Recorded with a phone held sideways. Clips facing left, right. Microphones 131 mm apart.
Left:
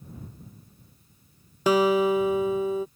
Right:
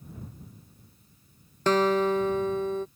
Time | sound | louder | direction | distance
1.7 | a guitar | left 2 dB | 10° left (ahead or behind) | ?